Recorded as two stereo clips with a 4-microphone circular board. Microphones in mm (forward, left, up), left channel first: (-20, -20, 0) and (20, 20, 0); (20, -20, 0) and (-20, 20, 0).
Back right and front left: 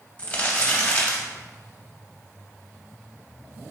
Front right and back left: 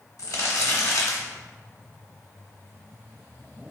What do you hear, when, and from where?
0.2 s crumpling: 70° right, 0.7 m